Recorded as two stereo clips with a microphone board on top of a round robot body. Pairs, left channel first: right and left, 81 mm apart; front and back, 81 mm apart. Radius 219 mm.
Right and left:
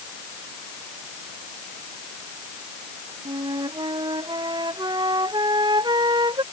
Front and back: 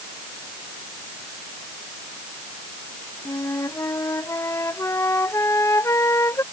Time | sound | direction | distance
3.2 | a flute | 55° left | ?